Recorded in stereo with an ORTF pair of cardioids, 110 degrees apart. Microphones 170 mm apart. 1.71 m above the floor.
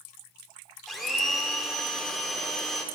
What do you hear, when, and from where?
0.9 s a blender: straight ahead, 1.1 m